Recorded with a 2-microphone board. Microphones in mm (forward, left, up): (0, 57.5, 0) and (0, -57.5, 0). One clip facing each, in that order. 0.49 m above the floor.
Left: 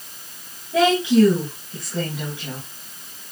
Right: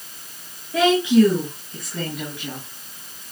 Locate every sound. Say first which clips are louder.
0.7 s a woman speaking: even; 35° left (ahead or behind), 3.5 m